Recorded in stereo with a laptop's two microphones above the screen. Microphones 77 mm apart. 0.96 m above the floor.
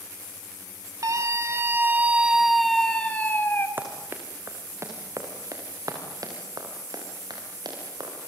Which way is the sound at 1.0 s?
50° right (ahead or behind).